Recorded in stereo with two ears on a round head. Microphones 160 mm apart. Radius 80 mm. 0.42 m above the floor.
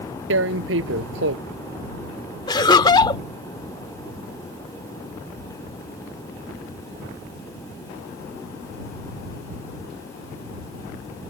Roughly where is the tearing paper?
Right.